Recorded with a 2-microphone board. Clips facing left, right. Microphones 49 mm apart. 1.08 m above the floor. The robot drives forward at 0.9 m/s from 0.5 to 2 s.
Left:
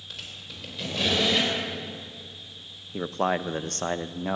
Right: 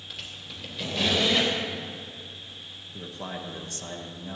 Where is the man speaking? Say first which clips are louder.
Left 11 dB; 55° left (ahead or behind), 0.5 m.